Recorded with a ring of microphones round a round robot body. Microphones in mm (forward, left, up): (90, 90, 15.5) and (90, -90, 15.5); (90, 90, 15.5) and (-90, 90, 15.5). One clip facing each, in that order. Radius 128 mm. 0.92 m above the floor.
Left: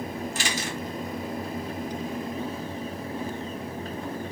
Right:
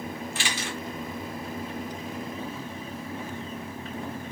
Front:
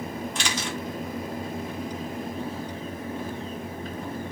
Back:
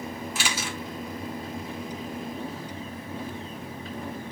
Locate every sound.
0.3 s a camera shutter: 100° left, 1.1 m